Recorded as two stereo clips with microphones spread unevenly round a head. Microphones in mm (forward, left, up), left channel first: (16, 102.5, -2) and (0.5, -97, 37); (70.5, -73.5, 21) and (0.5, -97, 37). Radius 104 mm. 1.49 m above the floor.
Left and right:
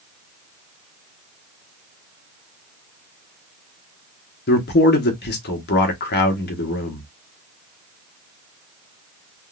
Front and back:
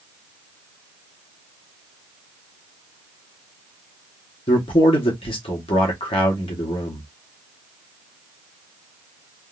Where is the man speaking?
40° left, 1.0 m.